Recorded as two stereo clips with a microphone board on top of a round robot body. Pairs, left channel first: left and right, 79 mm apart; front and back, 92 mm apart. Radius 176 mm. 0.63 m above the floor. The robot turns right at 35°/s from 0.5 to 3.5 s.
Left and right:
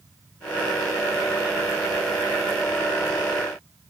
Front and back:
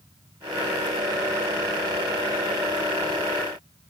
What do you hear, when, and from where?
Only background noise.